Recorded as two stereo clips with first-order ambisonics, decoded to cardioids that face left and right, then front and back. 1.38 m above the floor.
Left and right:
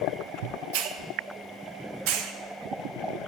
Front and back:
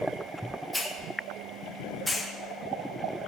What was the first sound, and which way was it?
A hiss, 90° right.